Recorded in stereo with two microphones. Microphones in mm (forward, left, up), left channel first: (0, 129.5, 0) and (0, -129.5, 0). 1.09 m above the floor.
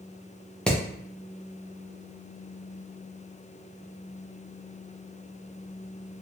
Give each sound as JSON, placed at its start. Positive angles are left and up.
{"t": 0.7, "sound": "hammering", "side_deg": 5, "distance_m": 0.6}